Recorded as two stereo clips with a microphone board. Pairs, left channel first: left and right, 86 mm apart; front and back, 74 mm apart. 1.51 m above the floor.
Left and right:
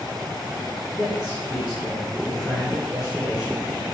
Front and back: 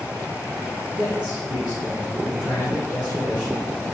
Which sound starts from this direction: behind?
A man speaking, at 1.0 s.